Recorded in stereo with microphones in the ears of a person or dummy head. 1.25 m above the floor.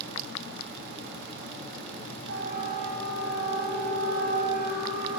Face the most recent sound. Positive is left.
turn(degrees=-55)  # may be behind; listen again after turning